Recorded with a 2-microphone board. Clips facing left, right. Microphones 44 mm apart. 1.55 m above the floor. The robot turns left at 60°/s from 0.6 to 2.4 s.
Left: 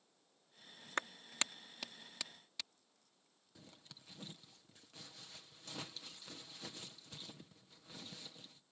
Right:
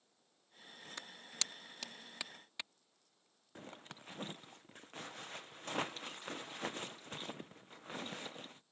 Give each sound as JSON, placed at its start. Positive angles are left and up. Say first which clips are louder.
{"t": 1.0, "sound": "a clap", "louder": "left 7 dB", "side_deg": 55}
{"t": 3.5, "sound": "a zipper", "louder": "right 9 dB", "side_deg": -45}